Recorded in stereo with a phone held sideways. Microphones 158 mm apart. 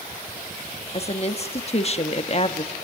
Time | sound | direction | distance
0.9 | a woman speaking | 40° left (ahead or behind) | 1.4 m